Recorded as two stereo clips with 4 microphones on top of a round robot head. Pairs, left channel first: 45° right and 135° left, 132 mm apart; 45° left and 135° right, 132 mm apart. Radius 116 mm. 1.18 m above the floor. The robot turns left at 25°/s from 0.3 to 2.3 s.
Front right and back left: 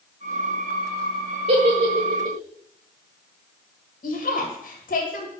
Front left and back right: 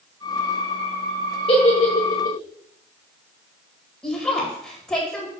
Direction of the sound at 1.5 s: 90° left.